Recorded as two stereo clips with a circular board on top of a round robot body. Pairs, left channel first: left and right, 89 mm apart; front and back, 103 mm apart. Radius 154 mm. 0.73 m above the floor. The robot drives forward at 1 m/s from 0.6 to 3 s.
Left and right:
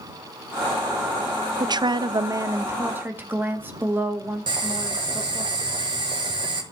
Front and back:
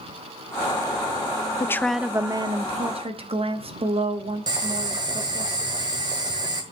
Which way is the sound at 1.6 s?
55° right.